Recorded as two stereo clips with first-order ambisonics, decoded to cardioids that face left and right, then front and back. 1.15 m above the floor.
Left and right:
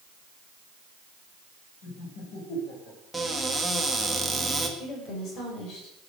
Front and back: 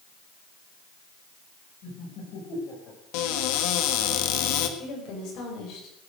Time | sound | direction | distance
1.8 | laughter | 45° left | 6.5 m
3.1 | a cupboard door | 5° right | 1.7 m
4.8 | a woman speaking | 40° left | 6 m